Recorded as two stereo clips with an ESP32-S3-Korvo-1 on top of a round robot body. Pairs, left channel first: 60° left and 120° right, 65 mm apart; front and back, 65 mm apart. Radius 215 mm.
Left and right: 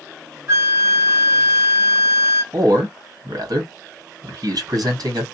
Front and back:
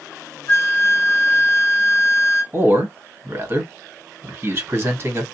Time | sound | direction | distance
0.5 | a flute | 55° right | 0.7 m
2.5 | a man speaking | 125° right | 1.7 m